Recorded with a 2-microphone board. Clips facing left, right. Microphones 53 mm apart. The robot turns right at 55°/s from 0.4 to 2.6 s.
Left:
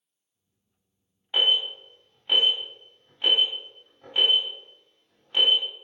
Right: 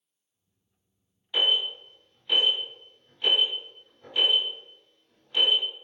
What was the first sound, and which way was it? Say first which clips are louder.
An alarm: left 2 dB; 20° left (ahead or behind).